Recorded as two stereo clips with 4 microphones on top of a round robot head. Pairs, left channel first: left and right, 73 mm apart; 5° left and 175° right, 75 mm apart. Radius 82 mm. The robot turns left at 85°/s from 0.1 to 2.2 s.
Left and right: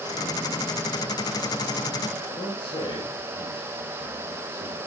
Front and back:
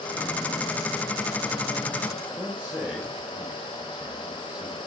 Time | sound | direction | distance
2.3 | a man speaking | 105° left | 7 m